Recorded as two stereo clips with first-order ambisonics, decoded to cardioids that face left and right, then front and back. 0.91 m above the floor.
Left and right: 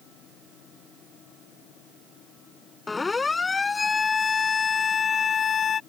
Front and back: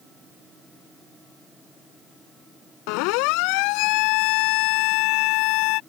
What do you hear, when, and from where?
2.9 s a siren: 15° left; by 5.8 s 25° left